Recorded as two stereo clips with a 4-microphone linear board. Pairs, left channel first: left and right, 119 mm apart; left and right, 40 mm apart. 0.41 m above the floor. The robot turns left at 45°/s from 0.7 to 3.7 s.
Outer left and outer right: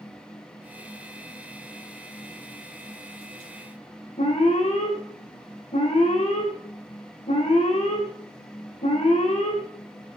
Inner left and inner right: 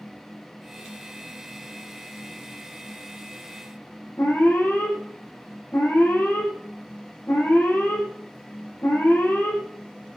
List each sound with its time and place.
4.2 s an alarm: 80° left, 9.5 m